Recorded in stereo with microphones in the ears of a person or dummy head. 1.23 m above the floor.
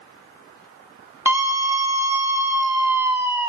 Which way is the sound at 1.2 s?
20° right (ahead or behind).